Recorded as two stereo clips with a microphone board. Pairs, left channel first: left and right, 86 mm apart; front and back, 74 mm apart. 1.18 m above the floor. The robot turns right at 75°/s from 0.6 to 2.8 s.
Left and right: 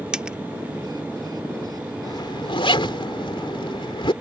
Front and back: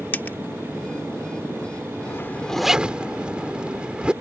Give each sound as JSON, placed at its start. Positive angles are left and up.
{"t": 0.1, "sound": "a dropped coin", "azimuth_deg": -20}
{"t": 2.1, "sound": "a zipper", "azimuth_deg": 50}